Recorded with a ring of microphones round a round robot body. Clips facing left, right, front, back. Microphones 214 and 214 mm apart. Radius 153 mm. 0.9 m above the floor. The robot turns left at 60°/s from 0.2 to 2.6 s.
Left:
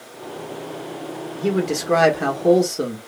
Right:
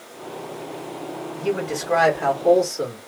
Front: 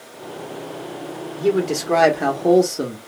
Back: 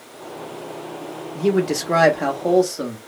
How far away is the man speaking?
About 1.3 m.